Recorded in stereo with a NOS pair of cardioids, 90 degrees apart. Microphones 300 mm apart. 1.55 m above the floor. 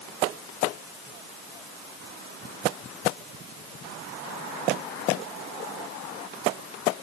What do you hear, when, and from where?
Only background noise.